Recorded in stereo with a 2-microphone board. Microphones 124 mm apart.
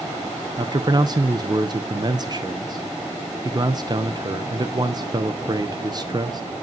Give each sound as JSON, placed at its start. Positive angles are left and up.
{"t": 0.6, "sound": "a man speaking", "side_deg": -35, "distance_m": 0.7}